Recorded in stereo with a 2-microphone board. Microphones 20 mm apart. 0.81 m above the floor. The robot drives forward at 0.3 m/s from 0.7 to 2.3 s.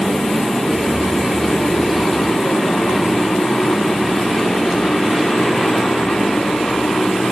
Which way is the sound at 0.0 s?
65° left (ahead or behind).